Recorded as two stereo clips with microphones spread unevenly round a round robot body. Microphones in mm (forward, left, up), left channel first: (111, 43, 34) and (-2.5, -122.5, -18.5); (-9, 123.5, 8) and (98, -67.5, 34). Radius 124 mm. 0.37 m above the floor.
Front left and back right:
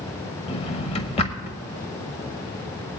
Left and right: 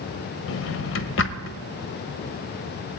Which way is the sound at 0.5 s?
130° left.